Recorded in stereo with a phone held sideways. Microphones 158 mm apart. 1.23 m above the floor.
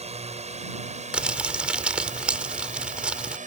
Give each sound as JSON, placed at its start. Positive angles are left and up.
{"t": 0.0, "sound": "a drone", "side_deg": -40}
{"t": 1.1, "sound": "crumpling", "side_deg": -5}